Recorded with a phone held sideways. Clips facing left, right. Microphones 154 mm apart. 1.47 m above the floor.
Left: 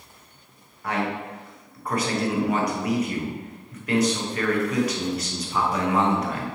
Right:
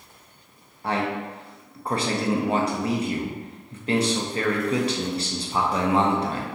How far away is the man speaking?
About 0.5 m.